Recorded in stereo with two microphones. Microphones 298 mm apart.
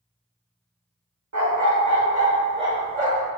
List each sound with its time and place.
1.3 s a dog barking: 65° right (ahead or behind), 0.7 m; by 3.3 s 20° right (ahead or behind), 1.4 m